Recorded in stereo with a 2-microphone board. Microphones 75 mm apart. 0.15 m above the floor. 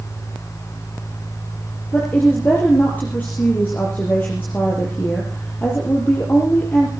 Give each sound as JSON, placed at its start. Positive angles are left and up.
{"t": 1.9, "sound": "a woman speaking", "side_deg": 25, "distance_m": 4.5}